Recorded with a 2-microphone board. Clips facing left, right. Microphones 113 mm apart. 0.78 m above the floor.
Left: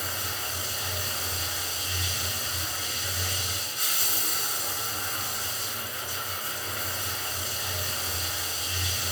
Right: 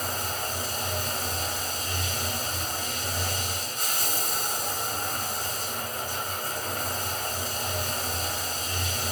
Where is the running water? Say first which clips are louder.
Right 4 dB; 45° right (ahead or behind), 1.0 m.